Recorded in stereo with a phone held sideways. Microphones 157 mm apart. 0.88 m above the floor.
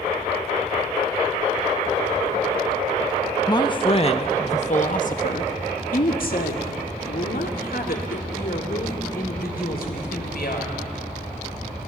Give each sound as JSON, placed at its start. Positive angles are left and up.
{"t": 3.5, "sound": "a man speaking", "side_deg": 25, "distance_m": 1.0}